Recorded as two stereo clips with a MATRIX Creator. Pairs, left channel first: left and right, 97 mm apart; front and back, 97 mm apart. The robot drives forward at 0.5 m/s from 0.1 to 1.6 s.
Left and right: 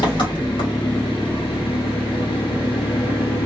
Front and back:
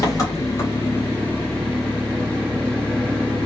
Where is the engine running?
55° left, 1.7 m; by 3.5 s 80° left, 1.5 m.